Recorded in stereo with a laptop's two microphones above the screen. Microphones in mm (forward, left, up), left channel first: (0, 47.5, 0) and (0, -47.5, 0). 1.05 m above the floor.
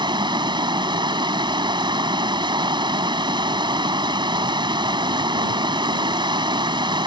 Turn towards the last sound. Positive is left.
turn(degrees=-55)  # may be behind; listen again after turning